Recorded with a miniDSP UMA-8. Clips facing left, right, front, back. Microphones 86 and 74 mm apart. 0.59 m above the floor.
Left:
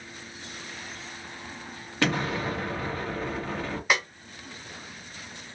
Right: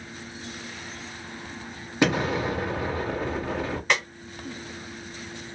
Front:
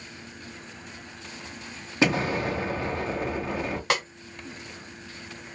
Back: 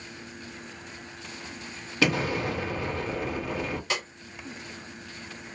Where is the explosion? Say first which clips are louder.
Right 4 dB, front 2 dB; 35° right, 1.2 m.